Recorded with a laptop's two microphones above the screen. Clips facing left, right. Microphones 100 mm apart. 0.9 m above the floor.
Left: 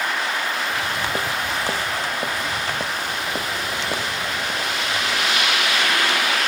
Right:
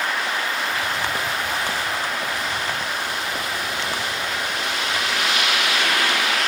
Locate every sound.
0.7 s footsteps: 30° left (ahead or behind); by 5.6 s 40° left (ahead or behind)